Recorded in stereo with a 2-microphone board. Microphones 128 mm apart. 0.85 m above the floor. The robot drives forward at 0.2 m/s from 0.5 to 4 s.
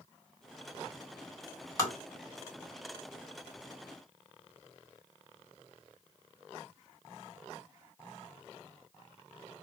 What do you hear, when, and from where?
1.8 s tapping: 25° left (ahead or behind), 2 m